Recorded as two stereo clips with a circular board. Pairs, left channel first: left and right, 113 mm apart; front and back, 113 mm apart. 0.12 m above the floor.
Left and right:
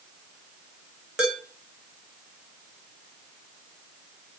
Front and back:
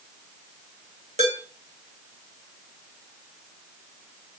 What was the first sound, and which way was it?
Dishes clattering, 175° right.